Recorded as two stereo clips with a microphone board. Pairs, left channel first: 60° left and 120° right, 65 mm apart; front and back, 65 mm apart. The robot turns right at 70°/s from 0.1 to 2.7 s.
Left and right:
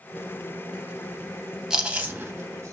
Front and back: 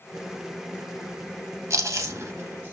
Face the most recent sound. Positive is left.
turn(degrees=-130)